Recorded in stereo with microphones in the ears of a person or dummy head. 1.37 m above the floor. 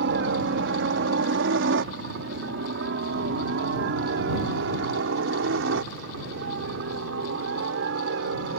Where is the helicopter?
60° right (ahead or behind); by 8.6 s 65° right (ahead or behind).